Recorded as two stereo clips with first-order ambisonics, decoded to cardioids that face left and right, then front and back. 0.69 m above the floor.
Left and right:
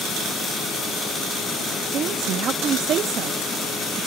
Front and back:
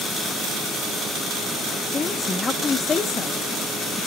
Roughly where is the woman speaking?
Ahead right.